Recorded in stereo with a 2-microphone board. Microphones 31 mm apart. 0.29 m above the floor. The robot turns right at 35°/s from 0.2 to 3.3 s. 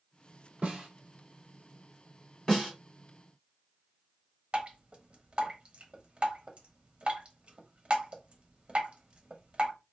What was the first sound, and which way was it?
A snare drum, 55° right (ahead or behind).